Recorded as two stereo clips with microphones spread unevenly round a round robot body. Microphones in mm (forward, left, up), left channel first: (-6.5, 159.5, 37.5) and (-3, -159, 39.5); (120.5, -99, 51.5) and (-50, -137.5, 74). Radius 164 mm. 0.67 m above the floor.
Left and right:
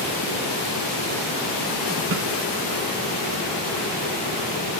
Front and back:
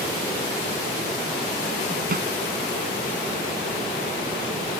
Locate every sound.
2.1 s a snare drum: 140° right